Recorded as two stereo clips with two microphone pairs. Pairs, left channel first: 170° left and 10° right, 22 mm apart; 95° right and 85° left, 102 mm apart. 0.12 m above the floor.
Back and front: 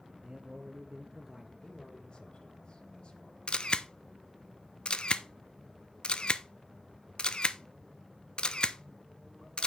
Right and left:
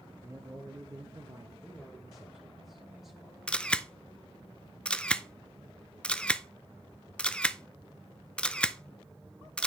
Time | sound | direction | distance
0.2 | a man speaking | 25° left | 1.9 m
1.6 | a man speaking | 170° left | 2.5 m
3.5 | a camera shutter | 175° right | 0.6 m